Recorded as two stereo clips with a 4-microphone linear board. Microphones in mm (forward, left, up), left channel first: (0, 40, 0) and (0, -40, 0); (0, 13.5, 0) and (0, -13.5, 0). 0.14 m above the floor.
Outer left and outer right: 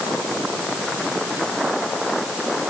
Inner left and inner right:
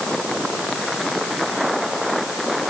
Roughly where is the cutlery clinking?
No cutlery clinking in this recording.